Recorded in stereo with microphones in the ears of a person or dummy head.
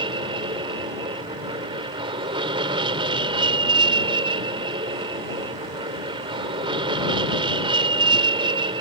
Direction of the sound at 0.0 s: 25° right (ahead or behind).